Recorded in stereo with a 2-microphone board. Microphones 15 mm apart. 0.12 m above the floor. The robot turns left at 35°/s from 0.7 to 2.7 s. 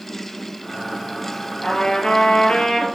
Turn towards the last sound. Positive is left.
turn(degrees=80)